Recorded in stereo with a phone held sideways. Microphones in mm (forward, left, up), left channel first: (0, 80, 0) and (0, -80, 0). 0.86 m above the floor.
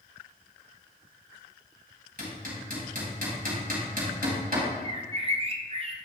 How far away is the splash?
I don't hear a splash.